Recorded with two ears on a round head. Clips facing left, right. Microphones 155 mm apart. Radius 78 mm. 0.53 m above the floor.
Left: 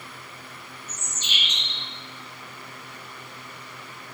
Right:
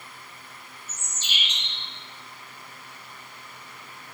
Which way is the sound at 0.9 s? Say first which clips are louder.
Left 1 dB; 30° right (ahead or behind).